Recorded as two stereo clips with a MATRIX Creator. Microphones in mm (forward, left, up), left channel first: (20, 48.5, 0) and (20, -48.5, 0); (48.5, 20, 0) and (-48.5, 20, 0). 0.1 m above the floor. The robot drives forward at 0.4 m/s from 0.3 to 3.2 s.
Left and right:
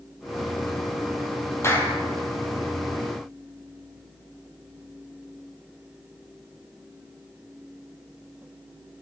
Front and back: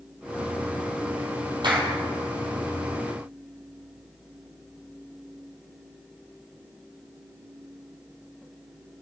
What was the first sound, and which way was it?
A clap, 150° left.